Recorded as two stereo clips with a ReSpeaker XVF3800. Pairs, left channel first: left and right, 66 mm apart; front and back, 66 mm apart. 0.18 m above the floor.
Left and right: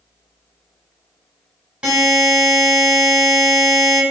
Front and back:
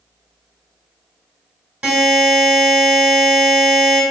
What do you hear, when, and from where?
1.8 s a buzzer: 135° right, 1.2 m